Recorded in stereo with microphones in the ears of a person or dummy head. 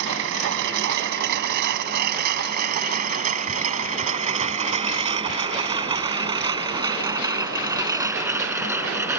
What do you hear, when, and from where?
0.0 s a lawn mower: 65° right (ahead or behind); by 9.2 s 5° right (ahead or behind)